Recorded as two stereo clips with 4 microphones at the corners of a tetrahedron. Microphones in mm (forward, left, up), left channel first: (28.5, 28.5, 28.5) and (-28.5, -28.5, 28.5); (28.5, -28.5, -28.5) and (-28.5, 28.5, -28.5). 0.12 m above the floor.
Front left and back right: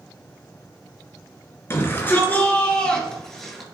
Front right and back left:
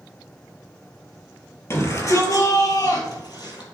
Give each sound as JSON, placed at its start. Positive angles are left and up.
{"t": 1.7, "sound": "a shout", "azimuth_deg": -5, "distance_m": 2.5}